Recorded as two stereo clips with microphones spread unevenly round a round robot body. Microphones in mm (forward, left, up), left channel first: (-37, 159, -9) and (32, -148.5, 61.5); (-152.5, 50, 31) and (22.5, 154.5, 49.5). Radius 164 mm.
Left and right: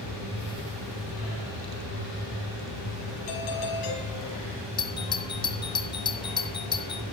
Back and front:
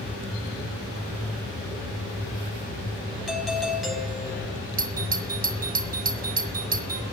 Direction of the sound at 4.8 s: 55° left.